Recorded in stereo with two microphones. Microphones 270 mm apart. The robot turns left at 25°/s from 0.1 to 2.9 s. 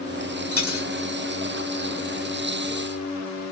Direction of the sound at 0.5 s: 60° left (ahead or behind).